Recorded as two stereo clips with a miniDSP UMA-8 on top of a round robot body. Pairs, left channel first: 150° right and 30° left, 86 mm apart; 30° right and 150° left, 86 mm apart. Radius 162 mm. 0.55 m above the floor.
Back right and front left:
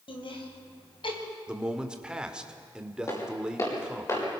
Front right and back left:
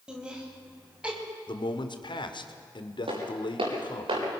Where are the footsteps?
160° left, 8.5 m; by 4.2 s 155° left, 9.5 m.